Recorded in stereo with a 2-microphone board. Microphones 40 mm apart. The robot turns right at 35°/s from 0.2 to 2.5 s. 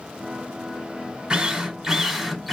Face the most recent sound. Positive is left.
turn(degrees=0)  # may be behind; listen again after turning